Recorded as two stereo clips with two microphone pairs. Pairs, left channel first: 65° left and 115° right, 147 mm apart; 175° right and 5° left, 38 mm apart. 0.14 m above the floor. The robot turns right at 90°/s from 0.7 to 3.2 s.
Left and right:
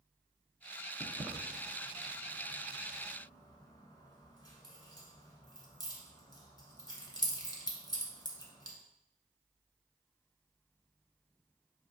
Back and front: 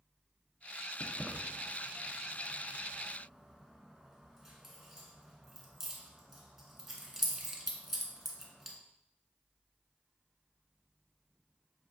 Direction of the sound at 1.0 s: 115° right.